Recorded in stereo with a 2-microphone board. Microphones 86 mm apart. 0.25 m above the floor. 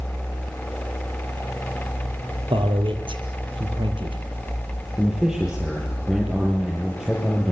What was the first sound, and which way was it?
A man speaking, 75° right (ahead or behind).